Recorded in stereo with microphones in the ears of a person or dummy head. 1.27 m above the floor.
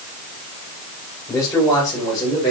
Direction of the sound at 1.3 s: 15° left (ahead or behind).